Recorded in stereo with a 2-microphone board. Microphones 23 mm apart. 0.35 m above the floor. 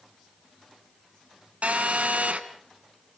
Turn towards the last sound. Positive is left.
turn(degrees=-75)  # may be behind; listen again after turning